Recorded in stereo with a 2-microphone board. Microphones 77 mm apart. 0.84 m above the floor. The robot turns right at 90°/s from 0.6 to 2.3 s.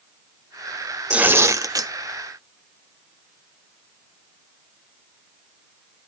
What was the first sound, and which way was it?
Tearing paper, 165° right.